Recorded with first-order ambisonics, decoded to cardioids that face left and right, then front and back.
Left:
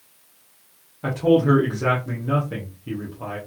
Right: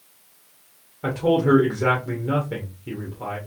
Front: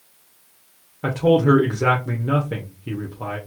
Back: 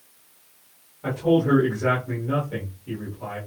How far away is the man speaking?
About 0.9 m.